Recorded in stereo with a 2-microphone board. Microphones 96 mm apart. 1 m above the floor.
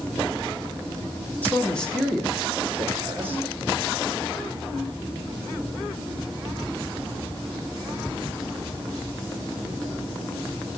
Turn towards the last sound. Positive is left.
turn(degrees=-25)  # may be behind; listen again after turning